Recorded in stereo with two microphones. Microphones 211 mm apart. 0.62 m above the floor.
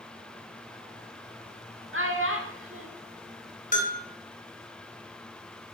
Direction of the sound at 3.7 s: 40° left (ahead or behind).